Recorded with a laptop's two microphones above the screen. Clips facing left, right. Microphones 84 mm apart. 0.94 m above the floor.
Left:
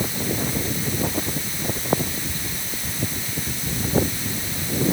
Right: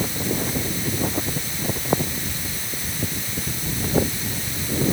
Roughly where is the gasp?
I don't hear a gasp.